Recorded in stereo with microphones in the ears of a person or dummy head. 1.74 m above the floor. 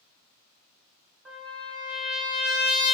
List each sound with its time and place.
1.2 s a trumpet: centre (ahead or behind), 1.0 m